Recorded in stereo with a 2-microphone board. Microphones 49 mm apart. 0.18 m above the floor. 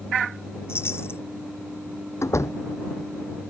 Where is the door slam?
80° left.